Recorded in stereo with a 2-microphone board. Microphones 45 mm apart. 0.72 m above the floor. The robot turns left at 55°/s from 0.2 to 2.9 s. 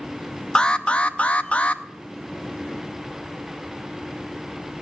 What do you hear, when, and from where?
0.6 s an alarm: 15° left (ahead or behind), 0.7 m; by 1.8 s 25° left (ahead or behind), 0.7 m